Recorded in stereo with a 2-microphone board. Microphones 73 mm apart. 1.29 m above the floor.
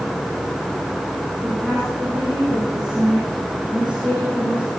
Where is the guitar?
No guitar in this recording.